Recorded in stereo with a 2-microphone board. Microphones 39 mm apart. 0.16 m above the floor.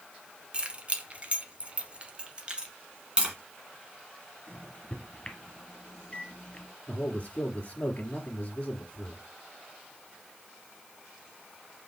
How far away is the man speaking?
About 2.0 m.